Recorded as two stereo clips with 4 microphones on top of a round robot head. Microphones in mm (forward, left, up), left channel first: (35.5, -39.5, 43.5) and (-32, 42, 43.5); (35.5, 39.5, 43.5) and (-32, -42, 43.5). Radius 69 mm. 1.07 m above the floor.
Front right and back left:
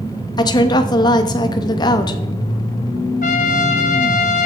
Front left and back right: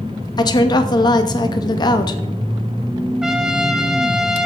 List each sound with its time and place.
0.4 s a woman speaking: straight ahead, 1.1 m
3.2 s a trumpet: 45° right, 0.8 m